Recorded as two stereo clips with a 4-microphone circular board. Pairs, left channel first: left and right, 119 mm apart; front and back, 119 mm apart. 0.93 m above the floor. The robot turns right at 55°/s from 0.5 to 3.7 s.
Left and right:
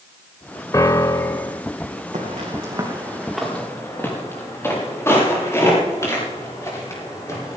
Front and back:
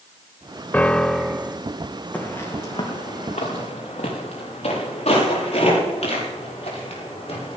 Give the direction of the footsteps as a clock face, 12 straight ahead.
3 o'clock.